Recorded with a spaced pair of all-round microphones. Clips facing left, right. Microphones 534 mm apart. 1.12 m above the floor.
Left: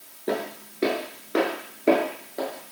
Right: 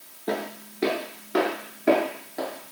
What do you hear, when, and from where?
0.3 s footsteps: 5° right (ahead or behind), 1.1 m; by 2.7 s 15° right (ahead or behind), 1.4 m